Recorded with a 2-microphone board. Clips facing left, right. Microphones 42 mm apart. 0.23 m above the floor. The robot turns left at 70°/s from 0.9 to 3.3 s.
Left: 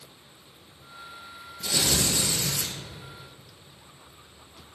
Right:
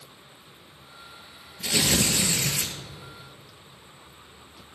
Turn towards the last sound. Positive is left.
turn(degrees=-160)